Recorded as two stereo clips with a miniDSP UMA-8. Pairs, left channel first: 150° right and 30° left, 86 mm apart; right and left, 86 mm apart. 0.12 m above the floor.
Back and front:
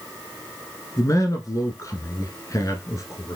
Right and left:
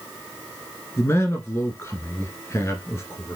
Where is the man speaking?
135° right, 1.4 m.